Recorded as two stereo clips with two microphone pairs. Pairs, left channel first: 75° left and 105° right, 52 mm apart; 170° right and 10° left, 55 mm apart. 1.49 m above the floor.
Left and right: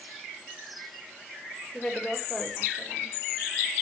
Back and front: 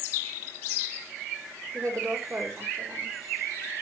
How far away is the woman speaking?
About 4.5 m.